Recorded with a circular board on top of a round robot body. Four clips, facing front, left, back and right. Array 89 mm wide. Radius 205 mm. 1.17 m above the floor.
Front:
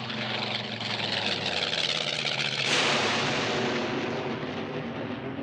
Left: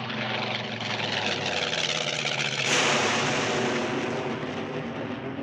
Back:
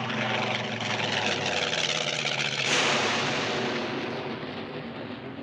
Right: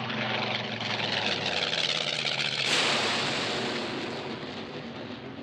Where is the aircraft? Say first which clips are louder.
Left 1 dB, back 5 dB; straight behind; by 5.4 s 65° left.